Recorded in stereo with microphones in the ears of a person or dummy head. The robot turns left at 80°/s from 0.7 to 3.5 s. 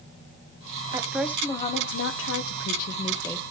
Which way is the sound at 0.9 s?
155° right.